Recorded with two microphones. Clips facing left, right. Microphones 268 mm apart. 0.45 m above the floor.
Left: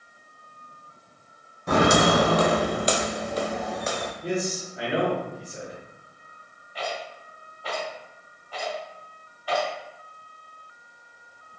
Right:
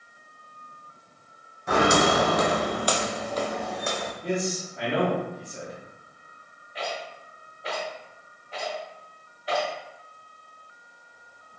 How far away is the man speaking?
About 2.0 m.